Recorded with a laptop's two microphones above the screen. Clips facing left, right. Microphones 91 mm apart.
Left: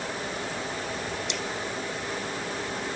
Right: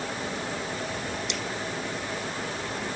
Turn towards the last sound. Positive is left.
No sound to turn to.